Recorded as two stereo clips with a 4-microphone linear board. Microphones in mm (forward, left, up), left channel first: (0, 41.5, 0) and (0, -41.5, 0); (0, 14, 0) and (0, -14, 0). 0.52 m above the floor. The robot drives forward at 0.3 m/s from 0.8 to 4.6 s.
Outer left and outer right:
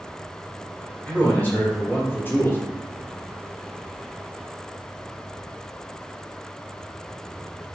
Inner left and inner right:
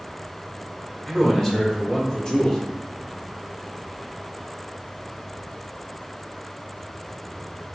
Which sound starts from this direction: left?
A man speaking, at 1.1 s.